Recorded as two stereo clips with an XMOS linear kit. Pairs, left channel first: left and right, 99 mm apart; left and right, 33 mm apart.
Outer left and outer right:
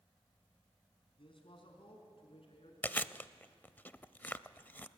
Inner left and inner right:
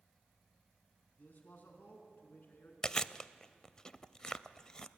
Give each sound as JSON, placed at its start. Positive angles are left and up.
{"t": 1.2, "sound": "a man speaking", "side_deg": 60, "distance_m": 4.0}
{"t": 2.8, "sound": "chewing", "side_deg": 20, "distance_m": 0.6}